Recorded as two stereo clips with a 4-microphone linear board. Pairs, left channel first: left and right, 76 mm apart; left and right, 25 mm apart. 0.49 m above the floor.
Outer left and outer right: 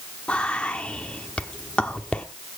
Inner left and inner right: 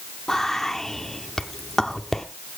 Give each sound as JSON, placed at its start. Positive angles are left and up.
{"t": 0.3, "sound": "whispering", "side_deg": 15, "distance_m": 0.9}